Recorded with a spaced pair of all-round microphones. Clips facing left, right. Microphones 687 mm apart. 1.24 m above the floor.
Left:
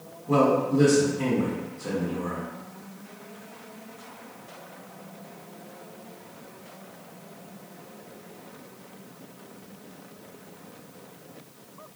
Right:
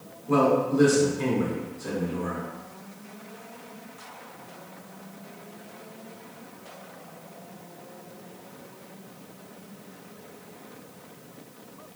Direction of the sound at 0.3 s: 25° left (ahead or behind).